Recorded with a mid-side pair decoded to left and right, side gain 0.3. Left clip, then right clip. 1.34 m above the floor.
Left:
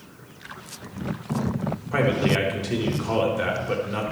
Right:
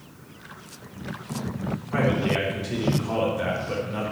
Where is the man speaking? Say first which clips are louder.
Left 2 dB; 55° left, 3.5 m.